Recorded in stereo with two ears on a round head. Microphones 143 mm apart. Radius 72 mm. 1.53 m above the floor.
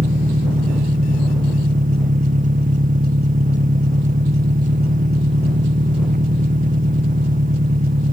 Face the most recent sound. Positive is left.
turn(degrees=-55)  # may be behind; listen again after turning